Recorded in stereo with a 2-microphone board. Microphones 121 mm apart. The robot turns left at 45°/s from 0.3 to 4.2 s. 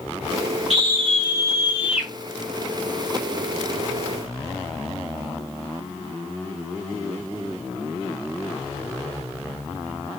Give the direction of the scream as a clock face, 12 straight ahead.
4 o'clock.